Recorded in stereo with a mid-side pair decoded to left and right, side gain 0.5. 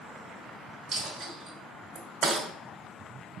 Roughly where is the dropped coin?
Ahead right.